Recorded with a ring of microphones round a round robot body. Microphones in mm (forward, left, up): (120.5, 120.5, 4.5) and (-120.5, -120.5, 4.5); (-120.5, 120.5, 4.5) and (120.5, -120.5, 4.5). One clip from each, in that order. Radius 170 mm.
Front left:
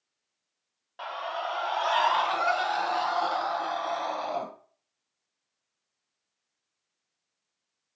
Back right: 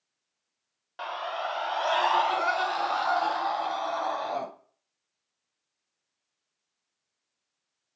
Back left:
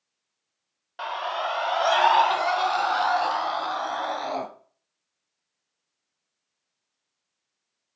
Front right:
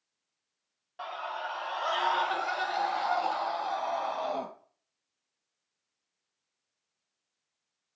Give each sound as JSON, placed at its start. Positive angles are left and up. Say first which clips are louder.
{"t": 1.0, "sound": "a scream", "louder": "back right 1 dB, back left 8 dB", "azimuth_deg": 165, "distance_m": 1.0}